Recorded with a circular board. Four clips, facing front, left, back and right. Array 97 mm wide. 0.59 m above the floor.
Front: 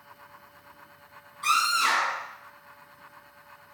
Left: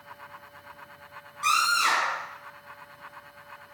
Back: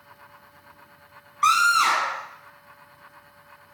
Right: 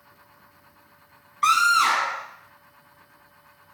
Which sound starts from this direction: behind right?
A scream, at 1.4 s.